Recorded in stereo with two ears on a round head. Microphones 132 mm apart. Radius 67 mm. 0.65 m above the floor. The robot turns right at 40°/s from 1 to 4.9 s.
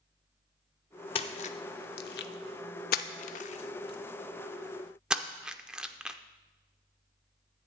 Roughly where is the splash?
Left.